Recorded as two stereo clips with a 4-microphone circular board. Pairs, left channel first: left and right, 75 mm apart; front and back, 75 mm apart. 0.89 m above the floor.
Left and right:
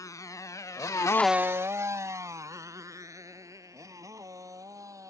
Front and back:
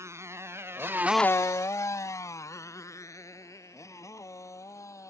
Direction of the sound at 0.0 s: 130° left.